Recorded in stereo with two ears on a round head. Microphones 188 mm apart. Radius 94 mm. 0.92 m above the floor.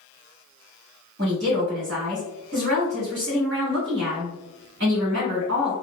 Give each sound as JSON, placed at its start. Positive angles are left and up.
{"t": 1.2, "sound": "a woman speaking", "side_deg": -60, "distance_m": 2.0}